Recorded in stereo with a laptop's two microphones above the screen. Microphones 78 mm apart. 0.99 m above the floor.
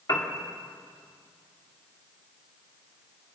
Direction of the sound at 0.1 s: 45° left (ahead or behind).